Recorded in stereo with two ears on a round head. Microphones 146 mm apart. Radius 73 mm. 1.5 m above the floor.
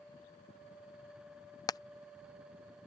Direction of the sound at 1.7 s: 25° left (ahead or behind).